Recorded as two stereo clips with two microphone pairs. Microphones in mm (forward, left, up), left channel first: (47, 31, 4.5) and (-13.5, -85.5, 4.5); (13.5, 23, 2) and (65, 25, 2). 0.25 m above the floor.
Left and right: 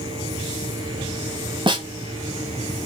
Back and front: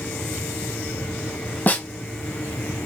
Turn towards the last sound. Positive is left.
turn(degrees=-140)